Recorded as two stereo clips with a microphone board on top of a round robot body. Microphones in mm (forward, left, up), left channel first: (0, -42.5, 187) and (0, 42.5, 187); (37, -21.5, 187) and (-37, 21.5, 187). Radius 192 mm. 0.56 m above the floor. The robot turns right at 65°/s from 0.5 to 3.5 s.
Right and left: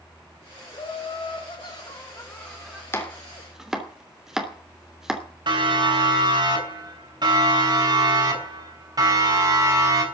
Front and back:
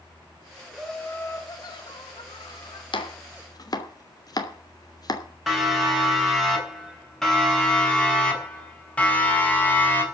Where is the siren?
65° left, 8.5 m; by 10.1 s 40° left, 6 m.